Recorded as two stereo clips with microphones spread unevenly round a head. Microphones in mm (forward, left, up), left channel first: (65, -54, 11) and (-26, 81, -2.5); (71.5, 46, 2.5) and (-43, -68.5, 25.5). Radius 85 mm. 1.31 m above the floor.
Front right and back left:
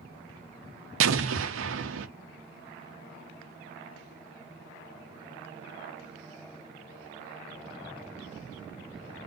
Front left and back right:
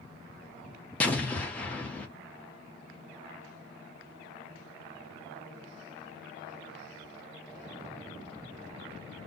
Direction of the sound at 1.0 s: 130° left.